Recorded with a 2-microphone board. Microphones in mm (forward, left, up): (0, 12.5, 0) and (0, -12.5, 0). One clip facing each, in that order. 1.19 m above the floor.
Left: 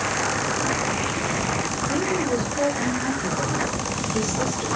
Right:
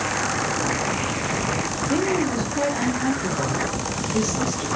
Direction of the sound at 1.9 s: 50° right (ahead or behind).